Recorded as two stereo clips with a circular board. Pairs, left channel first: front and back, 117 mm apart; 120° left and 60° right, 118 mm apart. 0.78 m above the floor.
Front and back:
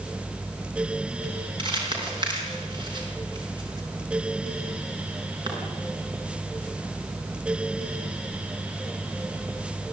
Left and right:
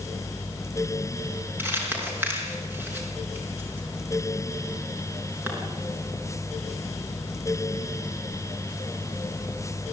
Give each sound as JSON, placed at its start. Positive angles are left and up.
{"t": 1.6, "sound": "crumpling", "azimuth_deg": -130, "distance_m": 5.5}